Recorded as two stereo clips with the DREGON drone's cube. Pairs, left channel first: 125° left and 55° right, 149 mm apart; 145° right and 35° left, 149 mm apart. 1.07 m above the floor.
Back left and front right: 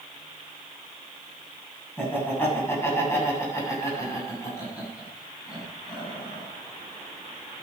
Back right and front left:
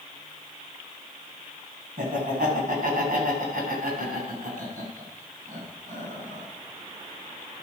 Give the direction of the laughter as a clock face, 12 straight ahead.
10 o'clock.